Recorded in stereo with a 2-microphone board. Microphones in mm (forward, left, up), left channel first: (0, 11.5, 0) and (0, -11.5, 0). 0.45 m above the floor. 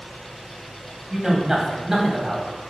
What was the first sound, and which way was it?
A man speaking, 20° right (ahead or behind).